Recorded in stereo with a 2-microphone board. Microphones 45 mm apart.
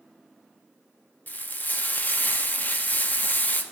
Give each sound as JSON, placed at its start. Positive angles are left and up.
{"t": 1.3, "sound": "frying", "side_deg": 45, "distance_m": 0.6}